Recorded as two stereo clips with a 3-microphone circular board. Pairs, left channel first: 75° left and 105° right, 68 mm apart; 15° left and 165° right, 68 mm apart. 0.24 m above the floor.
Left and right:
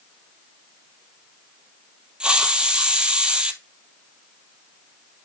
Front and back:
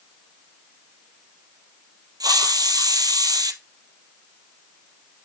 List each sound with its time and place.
2.2 s a hiss: straight behind, 0.9 m